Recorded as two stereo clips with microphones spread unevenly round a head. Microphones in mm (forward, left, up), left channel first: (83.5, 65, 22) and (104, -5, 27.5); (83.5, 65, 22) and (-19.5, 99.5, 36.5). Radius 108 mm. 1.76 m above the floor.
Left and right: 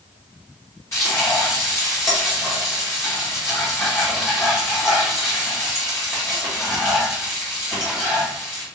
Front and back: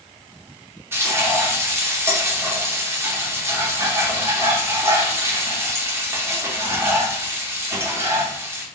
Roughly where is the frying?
Behind left.